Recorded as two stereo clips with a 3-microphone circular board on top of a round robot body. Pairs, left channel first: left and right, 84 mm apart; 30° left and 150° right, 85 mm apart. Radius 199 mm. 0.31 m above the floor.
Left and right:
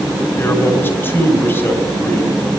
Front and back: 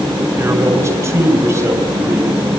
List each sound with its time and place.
0.4 s a man speaking: 155° left, 4.5 m